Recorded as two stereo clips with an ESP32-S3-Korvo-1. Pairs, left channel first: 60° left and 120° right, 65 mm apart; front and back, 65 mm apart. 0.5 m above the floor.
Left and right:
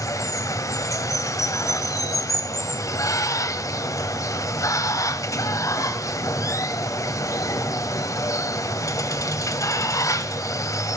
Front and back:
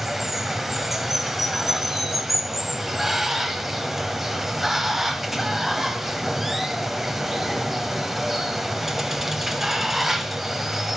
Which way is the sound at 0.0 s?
95° left.